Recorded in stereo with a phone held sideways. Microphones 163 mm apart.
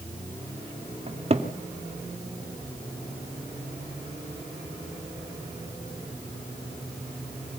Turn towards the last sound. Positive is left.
turn(degrees=-40)  # may be behind; listen again after turning